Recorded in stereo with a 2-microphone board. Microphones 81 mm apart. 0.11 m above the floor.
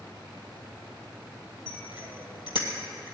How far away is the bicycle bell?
About 2.5 m.